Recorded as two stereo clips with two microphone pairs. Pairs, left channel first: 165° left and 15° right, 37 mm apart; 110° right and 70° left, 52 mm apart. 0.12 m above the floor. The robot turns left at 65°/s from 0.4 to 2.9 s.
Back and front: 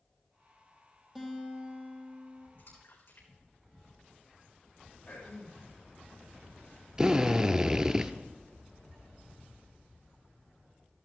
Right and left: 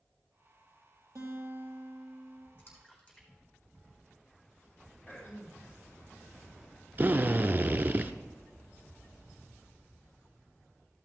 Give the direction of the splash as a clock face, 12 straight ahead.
5 o'clock.